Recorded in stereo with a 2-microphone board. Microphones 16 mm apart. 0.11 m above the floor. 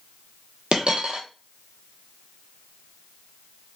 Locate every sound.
0.7 s a dropped coin: 60° right (ahead or behind), 0.9 m